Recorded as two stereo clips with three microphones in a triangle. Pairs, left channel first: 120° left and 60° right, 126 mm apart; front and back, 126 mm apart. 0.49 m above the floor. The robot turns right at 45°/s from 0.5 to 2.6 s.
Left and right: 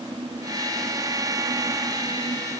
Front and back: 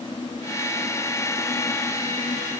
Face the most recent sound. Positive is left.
No sound to turn to.